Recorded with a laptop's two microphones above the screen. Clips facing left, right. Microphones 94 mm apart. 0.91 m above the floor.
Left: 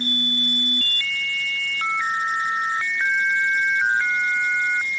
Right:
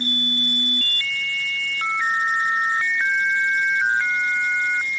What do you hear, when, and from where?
Only background noise.